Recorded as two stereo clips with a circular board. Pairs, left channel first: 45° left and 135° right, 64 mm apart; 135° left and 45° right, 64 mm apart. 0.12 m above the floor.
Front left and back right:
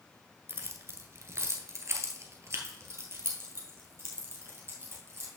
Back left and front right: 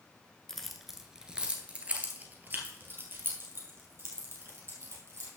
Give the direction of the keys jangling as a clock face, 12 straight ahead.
5 o'clock.